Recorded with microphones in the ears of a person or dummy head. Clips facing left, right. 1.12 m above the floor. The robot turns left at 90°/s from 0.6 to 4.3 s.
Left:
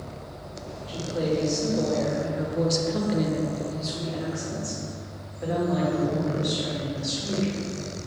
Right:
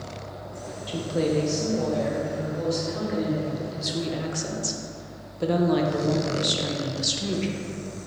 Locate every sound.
0.9 s a woman speaking: 110° right, 0.6 m; by 7.7 s 60° right, 0.6 m